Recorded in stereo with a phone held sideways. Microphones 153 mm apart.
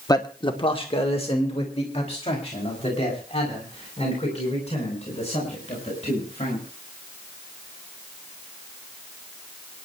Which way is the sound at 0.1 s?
25° left (ahead or behind).